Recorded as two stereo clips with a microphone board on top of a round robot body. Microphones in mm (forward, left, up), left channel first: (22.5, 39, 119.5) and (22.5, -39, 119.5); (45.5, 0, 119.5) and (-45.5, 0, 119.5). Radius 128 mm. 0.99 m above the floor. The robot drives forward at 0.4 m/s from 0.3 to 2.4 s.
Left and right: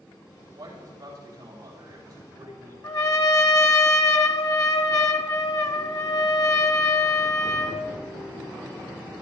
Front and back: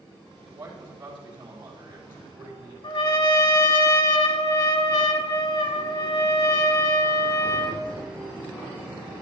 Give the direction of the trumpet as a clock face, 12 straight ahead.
10 o'clock.